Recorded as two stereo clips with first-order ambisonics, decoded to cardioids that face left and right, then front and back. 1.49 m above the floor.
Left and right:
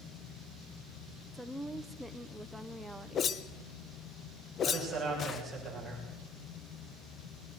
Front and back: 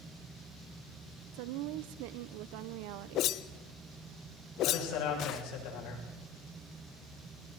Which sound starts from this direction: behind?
A woman speaking, at 1.3 s.